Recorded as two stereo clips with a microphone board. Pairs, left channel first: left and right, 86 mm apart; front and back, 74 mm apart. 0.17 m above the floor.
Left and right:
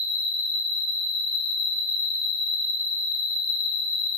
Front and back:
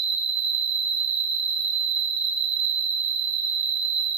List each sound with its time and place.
0.0 s an insect: 130° left, 1.4 m